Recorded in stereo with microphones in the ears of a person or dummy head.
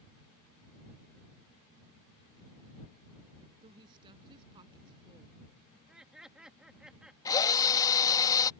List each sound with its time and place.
3.6 s a woman speaking: 30° right (ahead or behind)
5.7 s laughter: 5° right (ahead or behind)
7.2 s a drill: 20° left (ahead or behind)